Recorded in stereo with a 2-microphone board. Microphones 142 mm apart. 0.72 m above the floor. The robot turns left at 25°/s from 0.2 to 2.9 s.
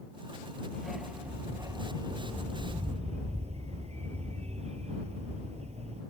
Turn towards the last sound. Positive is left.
turn(degrees=-55)